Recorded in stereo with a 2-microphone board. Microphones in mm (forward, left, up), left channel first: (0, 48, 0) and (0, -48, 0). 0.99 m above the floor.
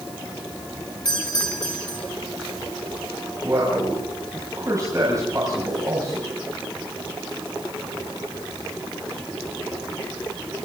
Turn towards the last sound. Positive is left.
turn(degrees=-35)  # may be behind; listen again after turning